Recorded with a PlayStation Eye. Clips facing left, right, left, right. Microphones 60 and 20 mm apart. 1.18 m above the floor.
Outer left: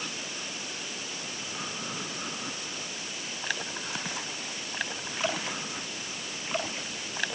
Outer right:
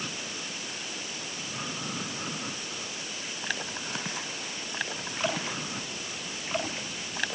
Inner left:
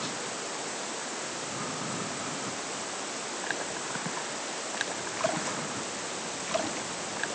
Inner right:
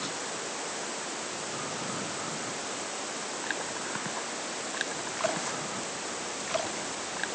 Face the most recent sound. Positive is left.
No sound to turn to.